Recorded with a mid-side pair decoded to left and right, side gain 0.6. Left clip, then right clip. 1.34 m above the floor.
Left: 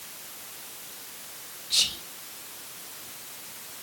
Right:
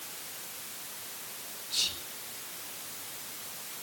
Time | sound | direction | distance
1.7 | whispering | 55° left | 3 m